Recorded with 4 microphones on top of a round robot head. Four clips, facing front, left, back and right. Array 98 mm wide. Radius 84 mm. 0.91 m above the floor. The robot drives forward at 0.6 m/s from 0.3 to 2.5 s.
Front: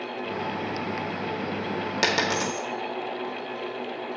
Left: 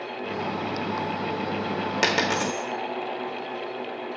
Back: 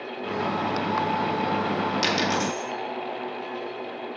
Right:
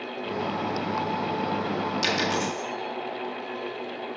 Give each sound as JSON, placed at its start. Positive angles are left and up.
{"t": 2.0, "sound": "a dropped coin", "azimuth_deg": 50, "distance_m": 1.3}